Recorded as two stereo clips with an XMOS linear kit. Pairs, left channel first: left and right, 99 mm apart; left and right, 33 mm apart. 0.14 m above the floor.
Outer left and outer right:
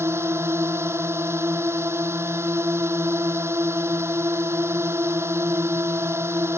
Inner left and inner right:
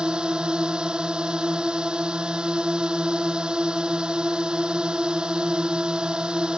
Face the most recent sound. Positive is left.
turn(degrees=-25)  # may be behind; listen again after turning